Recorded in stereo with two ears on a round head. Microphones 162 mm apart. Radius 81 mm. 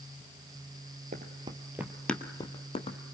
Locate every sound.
1.1 s running footsteps: 45° right (ahead or behind), 1.6 m; by 3.0 s 40° left (ahead or behind), 2.0 m